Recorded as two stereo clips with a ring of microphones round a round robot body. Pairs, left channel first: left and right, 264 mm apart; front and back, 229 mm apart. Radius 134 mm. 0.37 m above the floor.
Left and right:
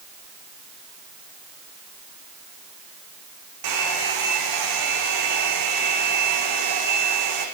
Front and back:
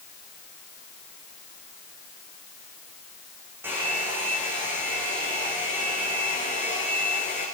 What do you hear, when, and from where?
3.6 s a hair dryer: 100° right, 9 m